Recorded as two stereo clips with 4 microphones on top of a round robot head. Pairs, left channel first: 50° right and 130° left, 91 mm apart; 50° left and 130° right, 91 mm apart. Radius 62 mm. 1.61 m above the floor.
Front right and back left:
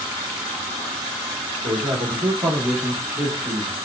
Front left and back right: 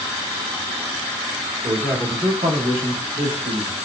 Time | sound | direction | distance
1.6 | a man speaking | straight behind | 1.7 m